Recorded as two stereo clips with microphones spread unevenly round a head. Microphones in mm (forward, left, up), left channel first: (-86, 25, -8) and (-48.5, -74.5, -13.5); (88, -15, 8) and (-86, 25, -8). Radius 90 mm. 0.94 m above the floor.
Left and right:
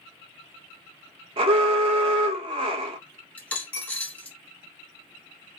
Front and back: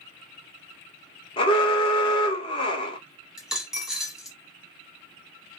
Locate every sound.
1.4 s an alarm: 75° right, 0.7 m
3.4 s a dropped coin: 70° left, 0.8 m